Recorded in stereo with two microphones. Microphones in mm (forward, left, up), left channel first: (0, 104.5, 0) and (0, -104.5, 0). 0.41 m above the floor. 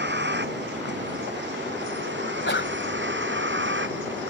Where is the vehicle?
55° right (ahead or behind); by 4.3 s 65° right (ahead or behind).